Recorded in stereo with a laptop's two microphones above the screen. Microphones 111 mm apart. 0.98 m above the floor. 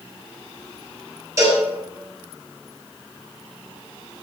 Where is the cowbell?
25° right (ahead or behind), 5 m.